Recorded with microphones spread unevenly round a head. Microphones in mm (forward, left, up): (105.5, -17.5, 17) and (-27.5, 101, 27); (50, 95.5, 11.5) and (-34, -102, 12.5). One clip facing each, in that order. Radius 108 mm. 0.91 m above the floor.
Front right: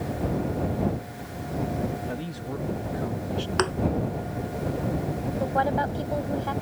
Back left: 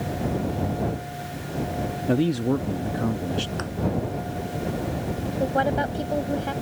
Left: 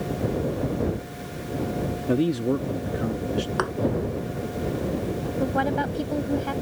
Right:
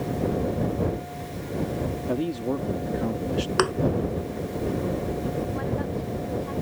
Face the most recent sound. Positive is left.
turn(degrees=75)